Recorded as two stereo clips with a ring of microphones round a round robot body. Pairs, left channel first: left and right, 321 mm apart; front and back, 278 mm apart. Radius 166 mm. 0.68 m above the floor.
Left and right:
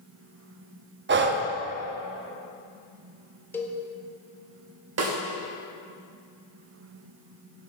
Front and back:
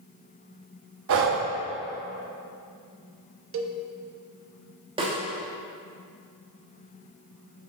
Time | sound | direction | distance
1.1 | breathing | 145° right | 0.7 m
3.5 | a cowbell | 170° left | 0.8 m
5.0 | a snare drum | 110° right | 1.2 m